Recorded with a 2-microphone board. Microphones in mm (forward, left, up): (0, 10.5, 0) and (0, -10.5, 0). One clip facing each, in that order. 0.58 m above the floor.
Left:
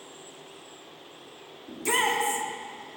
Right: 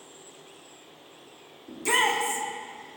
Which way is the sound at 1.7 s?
10° right (ahead or behind).